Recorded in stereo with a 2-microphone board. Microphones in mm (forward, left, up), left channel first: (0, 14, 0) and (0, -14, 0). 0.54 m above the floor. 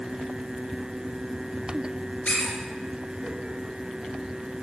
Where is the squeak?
40° left (ahead or behind), 3.5 m.